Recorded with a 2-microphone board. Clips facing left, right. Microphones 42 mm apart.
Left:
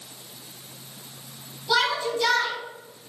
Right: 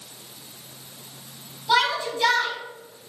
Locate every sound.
1.7 s a shout: 35° right (ahead or behind), 3 m